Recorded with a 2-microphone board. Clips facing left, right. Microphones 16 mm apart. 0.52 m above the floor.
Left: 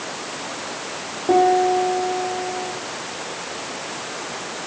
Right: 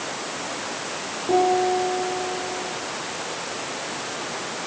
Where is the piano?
80° left, 5.5 m.